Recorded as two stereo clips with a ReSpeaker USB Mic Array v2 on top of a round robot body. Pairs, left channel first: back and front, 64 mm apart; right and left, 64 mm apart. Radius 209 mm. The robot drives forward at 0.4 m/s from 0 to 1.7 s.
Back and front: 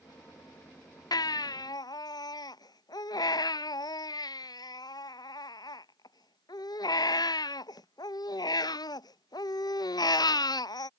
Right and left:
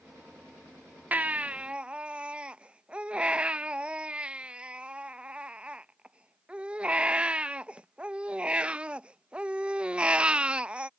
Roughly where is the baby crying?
Behind.